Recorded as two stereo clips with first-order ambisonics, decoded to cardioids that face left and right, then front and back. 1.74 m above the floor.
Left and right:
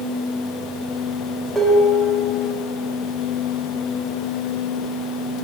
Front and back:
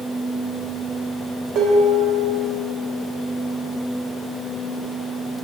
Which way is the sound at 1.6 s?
175° left.